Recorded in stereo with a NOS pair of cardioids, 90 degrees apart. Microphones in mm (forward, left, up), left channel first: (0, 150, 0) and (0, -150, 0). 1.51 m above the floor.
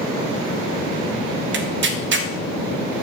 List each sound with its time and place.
1.5 s tearing paper: 40° right, 1.0 m